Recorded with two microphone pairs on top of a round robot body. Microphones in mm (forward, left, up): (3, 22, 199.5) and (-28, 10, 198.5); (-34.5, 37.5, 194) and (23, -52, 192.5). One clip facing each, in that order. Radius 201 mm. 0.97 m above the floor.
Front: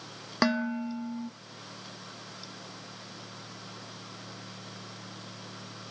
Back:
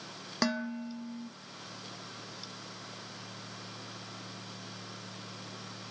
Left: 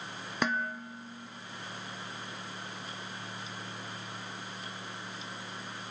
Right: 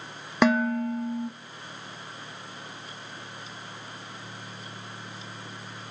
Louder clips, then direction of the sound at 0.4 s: Front 5 dB, right 11 dB; 50° right.